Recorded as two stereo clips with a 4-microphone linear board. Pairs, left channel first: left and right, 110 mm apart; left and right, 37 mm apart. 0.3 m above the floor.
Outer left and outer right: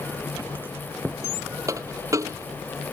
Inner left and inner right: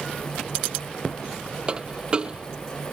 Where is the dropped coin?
25° right (ahead or behind).